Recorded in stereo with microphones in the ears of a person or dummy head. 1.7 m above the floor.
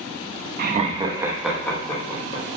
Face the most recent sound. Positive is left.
turn(degrees=25)  # may be behind; listen again after turning